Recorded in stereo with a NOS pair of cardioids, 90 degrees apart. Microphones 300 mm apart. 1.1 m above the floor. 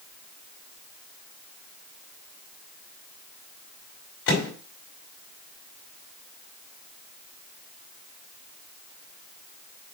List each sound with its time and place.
4.3 s a microwave: 50° left, 4.5 m